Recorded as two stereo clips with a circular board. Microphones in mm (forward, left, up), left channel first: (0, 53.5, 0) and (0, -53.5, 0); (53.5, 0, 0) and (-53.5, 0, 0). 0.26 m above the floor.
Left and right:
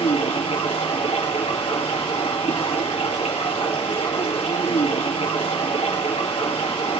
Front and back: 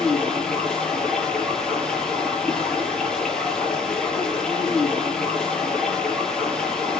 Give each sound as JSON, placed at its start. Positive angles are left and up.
{"t": 0.0, "sound": "running water", "azimuth_deg": 80, "distance_m": 5.5}